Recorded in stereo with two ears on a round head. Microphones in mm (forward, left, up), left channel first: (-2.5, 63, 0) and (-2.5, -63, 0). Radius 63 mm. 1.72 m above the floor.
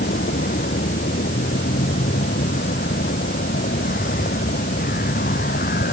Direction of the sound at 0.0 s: 65° left (ahead or behind).